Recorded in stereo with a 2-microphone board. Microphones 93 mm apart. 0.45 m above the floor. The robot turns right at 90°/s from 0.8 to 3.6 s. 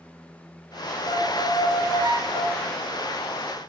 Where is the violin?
140° left, 6 m; by 2.7 s 75° right, 6 m.